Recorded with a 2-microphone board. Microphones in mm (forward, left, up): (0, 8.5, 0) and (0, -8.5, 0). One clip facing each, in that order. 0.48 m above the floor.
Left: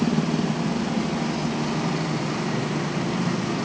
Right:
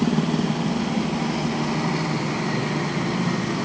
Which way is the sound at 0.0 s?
30° right (ahead or behind).